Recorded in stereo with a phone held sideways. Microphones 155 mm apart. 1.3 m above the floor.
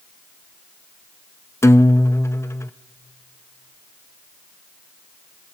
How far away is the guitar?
About 0.5 m.